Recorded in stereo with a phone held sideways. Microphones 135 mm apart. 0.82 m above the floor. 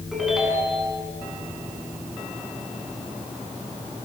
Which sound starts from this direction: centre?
A ringtone, at 0.1 s.